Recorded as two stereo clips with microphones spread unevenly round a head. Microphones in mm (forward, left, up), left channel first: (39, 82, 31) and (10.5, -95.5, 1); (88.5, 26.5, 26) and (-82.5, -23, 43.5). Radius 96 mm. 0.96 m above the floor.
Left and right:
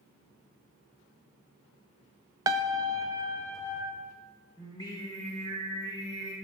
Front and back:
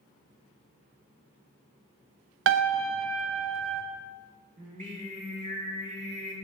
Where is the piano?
170° right, 0.6 m.